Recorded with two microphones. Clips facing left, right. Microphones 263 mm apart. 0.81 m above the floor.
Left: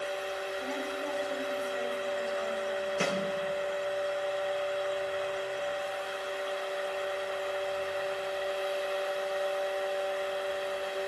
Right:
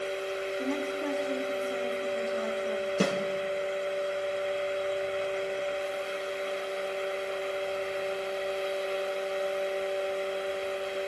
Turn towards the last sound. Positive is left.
turn(degrees=-45)  # may be behind; listen again after turning